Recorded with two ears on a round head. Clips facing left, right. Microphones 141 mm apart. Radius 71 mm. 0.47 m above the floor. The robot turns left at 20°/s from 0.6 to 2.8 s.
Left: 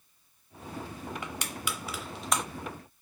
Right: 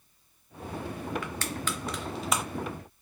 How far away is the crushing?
About 0.6 m.